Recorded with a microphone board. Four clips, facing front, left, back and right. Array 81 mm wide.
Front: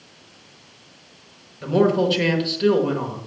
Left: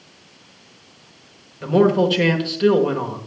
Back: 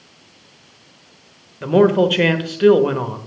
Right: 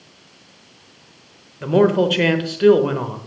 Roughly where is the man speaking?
Behind.